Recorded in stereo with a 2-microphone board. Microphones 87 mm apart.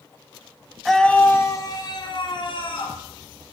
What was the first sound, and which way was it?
A scream, centre (ahead or behind).